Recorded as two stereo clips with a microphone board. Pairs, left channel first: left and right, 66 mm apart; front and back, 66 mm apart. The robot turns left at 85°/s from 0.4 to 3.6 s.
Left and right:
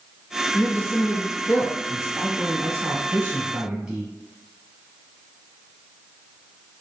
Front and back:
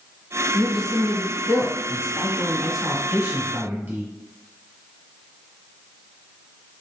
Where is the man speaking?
100° left, 1.1 m; by 4.0 s 160° right, 1.1 m.